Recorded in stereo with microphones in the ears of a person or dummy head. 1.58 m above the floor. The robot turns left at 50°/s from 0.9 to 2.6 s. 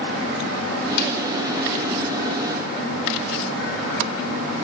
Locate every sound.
1.0 s a snare drum: 65° left (ahead or behind), 5 m; by 1.1 s 55° left (ahead or behind), 5 m